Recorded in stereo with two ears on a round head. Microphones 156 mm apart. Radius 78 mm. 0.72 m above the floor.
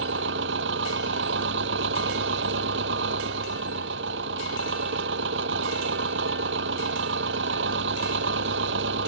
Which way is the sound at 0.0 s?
70° right (ahead or behind).